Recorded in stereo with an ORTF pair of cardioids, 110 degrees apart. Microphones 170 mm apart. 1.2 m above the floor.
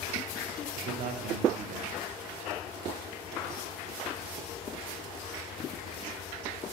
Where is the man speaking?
55° right, 0.5 m.